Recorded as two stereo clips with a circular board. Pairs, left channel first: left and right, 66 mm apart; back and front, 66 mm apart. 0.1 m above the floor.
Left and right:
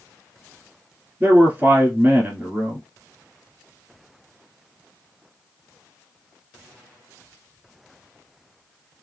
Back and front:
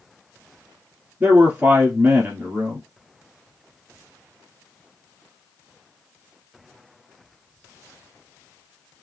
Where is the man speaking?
50° right, 1.5 m.